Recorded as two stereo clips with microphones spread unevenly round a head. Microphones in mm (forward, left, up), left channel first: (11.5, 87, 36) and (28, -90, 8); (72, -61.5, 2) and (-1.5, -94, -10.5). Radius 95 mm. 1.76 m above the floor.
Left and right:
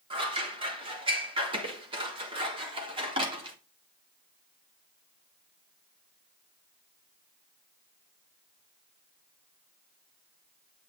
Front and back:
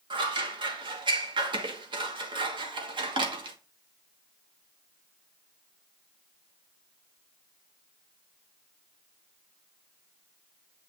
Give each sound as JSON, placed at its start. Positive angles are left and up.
{"t": 0.1, "sound": "scissors", "azimuth_deg": -150, "distance_m": 1.4}